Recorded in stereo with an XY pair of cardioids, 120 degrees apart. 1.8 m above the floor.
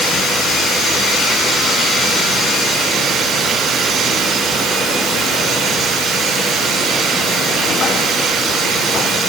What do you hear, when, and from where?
Only background noise.